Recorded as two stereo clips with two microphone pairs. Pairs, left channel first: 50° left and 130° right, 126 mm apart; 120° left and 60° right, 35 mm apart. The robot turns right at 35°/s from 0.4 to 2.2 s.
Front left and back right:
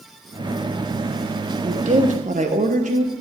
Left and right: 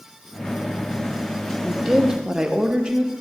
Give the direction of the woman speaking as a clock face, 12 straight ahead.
5 o'clock.